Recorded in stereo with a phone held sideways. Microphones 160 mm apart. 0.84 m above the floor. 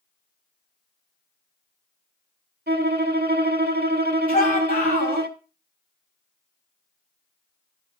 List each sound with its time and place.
2.7 s a violin: 75° right (ahead or behind), 1.3 m
4.3 s a shout: 60° left (ahead or behind), 6 m